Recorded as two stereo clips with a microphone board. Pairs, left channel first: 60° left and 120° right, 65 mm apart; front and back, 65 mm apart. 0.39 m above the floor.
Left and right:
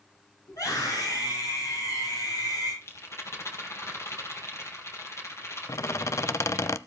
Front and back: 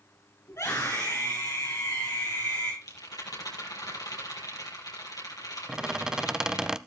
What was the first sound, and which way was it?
A scream, 40° left.